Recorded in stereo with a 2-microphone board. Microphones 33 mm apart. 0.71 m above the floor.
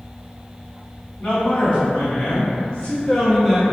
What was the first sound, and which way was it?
A man speaking, 55° left (ahead or behind).